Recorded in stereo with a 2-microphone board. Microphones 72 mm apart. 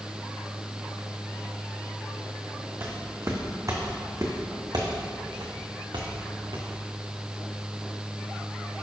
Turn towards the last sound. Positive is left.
turn(degrees=-80)